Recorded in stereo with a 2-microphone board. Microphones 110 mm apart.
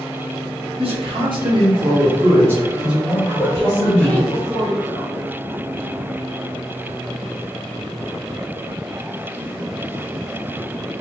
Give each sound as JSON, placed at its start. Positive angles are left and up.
{"t": 0.8, "sound": "a man speaking", "side_deg": -60, "distance_m": 1.1}
{"t": 3.2, "sound": "a woman speaking", "side_deg": 15, "distance_m": 1.0}